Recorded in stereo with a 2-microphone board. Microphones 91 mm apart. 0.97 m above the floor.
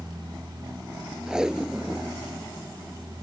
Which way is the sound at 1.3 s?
10° right (ahead or behind).